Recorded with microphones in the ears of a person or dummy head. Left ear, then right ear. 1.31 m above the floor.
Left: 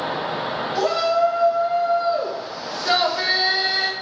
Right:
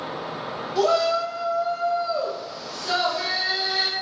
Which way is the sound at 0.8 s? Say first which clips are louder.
Left 1 dB; 70° left (ahead or behind).